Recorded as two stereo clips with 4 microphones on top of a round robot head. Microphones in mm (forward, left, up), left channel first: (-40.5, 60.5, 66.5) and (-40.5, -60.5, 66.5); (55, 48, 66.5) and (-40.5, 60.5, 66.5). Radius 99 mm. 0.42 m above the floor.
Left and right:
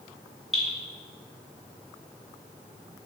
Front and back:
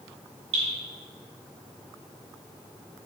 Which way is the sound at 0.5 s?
Straight behind.